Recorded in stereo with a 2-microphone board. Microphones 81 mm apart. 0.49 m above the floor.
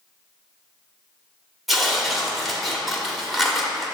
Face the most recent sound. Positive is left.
turn(degrees=0)  # may be behind; listen again after turning